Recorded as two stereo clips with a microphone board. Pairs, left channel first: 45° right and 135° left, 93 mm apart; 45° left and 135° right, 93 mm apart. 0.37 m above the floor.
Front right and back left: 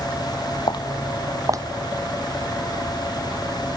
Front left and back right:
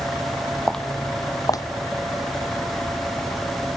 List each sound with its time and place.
0.7 s footsteps: 40° right, 0.7 m; by 3.4 s 105° left, 4 m